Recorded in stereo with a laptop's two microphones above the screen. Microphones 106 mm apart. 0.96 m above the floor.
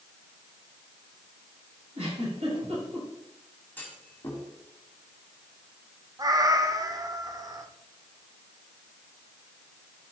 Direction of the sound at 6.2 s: 35° right (ahead or behind).